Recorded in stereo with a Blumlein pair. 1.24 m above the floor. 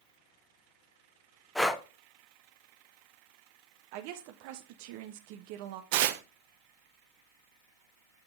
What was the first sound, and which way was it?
Breathing, 5° left.